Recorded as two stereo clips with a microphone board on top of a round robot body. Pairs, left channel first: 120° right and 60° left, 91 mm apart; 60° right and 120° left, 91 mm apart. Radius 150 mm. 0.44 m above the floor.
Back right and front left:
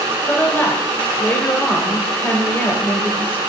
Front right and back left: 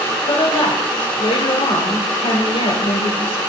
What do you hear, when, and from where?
0.3 s a woman speaking: 50° right, 3 m